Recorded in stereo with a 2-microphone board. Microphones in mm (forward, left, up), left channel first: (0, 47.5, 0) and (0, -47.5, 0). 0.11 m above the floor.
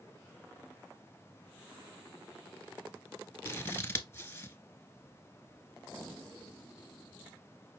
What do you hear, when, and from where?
3.5 s scissors: 25° left (ahead or behind), 0.7 m